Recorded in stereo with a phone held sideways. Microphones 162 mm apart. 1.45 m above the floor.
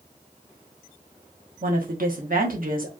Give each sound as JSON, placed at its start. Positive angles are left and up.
{"t": 1.6, "sound": "a woman speaking", "side_deg": -65, "distance_m": 1.2}